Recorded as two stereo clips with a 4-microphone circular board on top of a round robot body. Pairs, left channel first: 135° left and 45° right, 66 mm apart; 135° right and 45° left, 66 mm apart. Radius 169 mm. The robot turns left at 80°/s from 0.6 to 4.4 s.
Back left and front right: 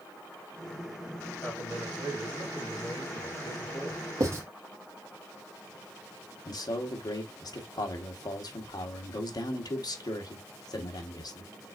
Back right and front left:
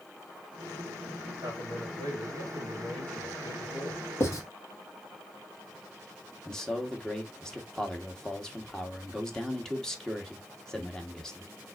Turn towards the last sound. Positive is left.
turn(degrees=145)